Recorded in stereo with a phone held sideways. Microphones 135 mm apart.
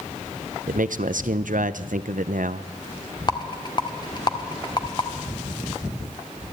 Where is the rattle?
35° left (ahead or behind), 1.5 m.